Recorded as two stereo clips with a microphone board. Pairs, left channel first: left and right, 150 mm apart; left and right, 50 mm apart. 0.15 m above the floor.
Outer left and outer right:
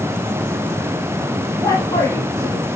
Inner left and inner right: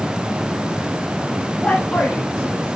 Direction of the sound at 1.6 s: 25° left (ahead or behind).